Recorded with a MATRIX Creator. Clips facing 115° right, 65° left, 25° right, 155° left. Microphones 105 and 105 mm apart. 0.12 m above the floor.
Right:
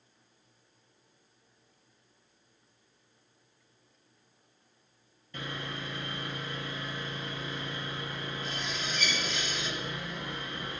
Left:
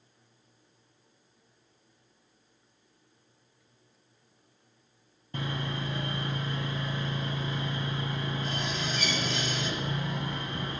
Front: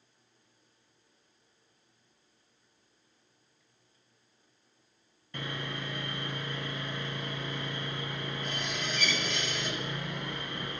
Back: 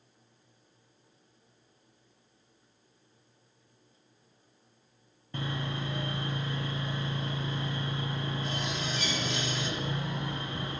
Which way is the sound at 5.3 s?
105° left.